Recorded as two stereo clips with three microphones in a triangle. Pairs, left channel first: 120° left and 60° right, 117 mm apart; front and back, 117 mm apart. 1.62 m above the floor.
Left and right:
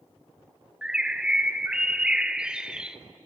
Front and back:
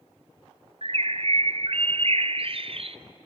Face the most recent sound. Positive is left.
turn(degrees=-140)